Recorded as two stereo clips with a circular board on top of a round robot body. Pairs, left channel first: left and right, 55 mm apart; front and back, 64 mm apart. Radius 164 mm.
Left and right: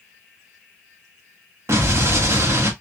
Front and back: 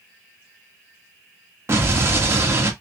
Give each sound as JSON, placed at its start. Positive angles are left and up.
{"t": 1.7, "sound": "an explosion", "azimuth_deg": -130, "distance_m": 1.3}